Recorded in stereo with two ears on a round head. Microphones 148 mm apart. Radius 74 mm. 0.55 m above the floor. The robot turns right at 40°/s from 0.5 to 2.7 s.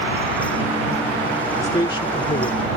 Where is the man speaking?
20° left; by 2.7 s 65° left.